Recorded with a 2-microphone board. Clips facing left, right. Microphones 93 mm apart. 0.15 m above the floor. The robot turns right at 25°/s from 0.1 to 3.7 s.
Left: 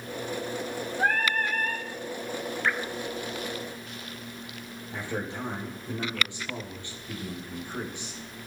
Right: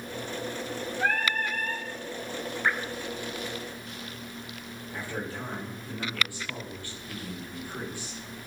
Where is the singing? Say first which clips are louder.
Left 2 dB; 40° left (ahead or behind), 2.0 m; by 1.9 s 55° left (ahead or behind), 2.0 m.